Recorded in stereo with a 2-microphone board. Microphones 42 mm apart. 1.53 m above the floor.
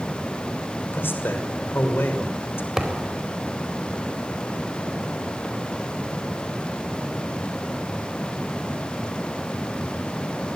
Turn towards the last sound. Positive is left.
turn(degrees=-10)  # may be behind; listen again after turning